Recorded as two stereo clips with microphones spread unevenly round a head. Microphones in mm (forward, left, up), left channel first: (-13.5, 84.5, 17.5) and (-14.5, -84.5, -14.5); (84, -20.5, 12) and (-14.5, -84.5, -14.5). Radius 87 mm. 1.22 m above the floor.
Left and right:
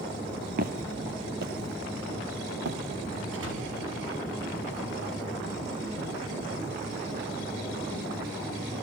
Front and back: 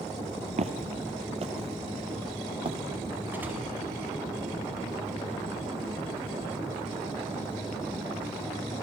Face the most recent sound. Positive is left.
turn(degrees=-75)